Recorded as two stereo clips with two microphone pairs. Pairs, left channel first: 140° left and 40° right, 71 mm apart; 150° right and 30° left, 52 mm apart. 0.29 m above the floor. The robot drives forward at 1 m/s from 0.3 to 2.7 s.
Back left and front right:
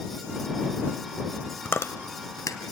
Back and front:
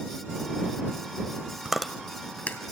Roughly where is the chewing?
Left.